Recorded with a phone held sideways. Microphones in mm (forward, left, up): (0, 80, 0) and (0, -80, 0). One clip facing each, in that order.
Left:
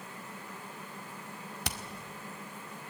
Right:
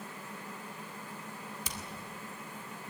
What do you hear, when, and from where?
1.6 s hammering: 70° left (ahead or behind), 1.7 m